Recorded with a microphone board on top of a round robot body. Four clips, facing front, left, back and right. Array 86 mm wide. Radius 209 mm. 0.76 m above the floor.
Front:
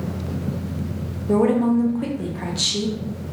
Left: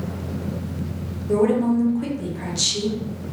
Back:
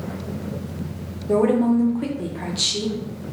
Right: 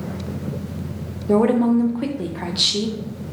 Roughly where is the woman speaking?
Right.